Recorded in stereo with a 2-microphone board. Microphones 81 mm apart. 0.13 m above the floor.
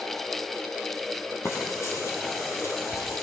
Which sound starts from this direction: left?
Frying, at 1.4 s.